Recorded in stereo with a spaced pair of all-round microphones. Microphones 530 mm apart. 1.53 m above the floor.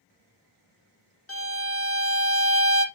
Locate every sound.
1.3 s a violin: 25° left (ahead or behind), 0.7 m